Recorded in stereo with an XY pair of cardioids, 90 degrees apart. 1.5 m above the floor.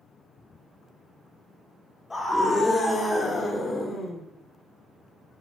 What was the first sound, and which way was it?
A scream, 25° left.